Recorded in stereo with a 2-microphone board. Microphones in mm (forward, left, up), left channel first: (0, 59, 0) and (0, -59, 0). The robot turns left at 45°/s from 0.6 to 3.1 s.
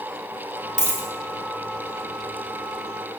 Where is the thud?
I don't hear a thud.